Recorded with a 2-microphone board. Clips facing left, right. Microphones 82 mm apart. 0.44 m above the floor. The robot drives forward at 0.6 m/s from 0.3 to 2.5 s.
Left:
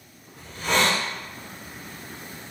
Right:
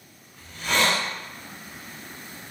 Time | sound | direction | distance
0.4 | a hiss | 35° left (ahead or behind) | 1.3 m